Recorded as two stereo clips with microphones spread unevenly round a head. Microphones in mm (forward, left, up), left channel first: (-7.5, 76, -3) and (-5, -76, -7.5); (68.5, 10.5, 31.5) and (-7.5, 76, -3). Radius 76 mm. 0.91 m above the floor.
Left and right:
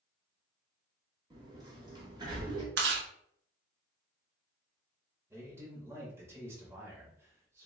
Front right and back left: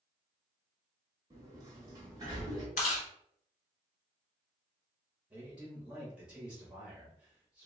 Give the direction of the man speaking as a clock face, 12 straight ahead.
5 o'clock.